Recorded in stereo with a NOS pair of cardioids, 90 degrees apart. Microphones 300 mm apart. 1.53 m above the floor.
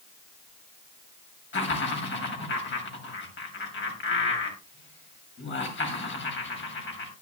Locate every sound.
1.5 s laughter: 40° left, 8.5 m